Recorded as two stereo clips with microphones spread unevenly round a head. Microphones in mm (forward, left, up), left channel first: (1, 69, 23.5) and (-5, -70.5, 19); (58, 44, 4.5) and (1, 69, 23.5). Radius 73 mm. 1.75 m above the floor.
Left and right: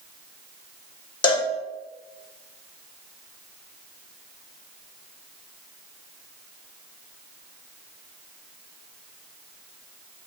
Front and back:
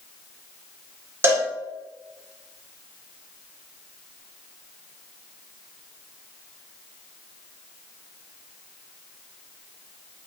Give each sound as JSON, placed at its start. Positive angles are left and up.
{"t": 1.2, "sound": "a cowbell", "azimuth_deg": 135, "distance_m": 0.6}